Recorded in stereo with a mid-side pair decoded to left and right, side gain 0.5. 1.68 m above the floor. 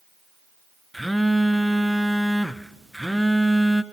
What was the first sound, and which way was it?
A phone buzzing, straight ahead.